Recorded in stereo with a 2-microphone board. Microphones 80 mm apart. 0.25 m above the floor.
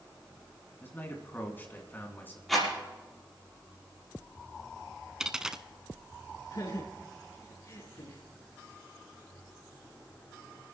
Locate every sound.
0.8 s a man speaking: 25° left (ahead or behind), 2.5 m
2.5 s a rattle: centre (ahead or behind), 6 m
5.2 s a dropped coin: 10° right (ahead or behind), 0.6 m
6.5 s laughter: 60° left (ahead or behind), 4 m